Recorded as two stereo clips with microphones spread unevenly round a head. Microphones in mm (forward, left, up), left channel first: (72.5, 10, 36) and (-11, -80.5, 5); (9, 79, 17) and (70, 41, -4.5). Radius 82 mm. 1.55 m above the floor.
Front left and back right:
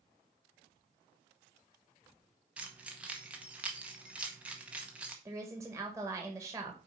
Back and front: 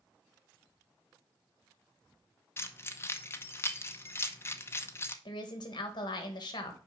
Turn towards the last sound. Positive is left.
turn(degrees=150)